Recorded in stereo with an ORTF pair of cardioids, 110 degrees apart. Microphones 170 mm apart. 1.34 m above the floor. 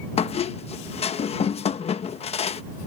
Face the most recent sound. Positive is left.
turn(degrees=40)